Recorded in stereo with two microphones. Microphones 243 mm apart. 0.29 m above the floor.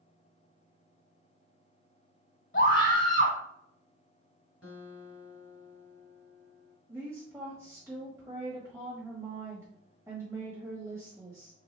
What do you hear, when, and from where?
2.5 s a scream: 50° left (ahead or behind), 1.5 m
4.6 s a guitar: 70° left (ahead or behind), 2.5 m
6.9 s a woman speaking: 10° right (ahead or behind), 1.6 m